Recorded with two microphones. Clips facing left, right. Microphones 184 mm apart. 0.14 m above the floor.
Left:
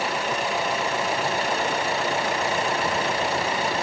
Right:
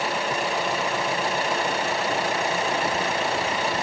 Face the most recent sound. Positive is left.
No sound to turn to.